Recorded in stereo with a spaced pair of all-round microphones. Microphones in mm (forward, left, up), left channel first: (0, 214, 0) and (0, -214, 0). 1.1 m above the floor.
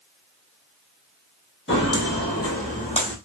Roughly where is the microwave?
I don't hear a microwave.